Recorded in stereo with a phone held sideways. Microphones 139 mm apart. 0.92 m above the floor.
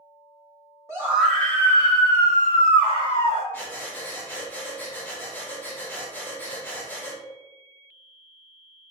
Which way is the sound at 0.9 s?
20° right (ahead or behind).